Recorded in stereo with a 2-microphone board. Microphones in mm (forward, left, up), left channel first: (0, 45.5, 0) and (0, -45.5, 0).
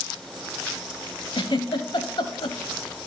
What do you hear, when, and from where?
1.3 s a giggle: 65° left (ahead or behind), 0.9 m